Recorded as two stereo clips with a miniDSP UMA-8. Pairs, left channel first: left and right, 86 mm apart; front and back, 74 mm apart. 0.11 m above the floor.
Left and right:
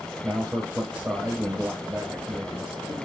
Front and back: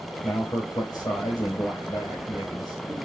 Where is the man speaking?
35° right, 3 m.